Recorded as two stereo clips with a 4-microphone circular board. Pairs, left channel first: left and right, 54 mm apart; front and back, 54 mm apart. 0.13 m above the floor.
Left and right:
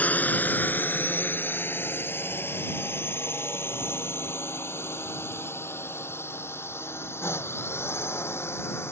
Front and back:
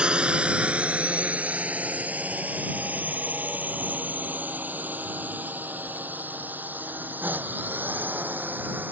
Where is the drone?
125° left.